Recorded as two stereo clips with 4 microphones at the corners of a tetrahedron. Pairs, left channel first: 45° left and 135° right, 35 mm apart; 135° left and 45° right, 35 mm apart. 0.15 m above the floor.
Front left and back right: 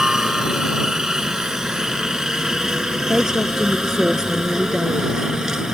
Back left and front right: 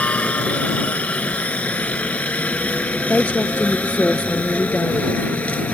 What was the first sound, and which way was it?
A helicopter, 155° left.